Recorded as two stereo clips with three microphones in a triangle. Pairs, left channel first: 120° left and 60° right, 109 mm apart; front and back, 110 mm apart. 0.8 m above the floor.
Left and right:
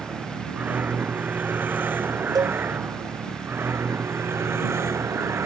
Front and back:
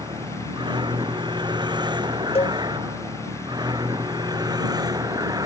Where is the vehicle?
135° right; by 5.5 s 125° right.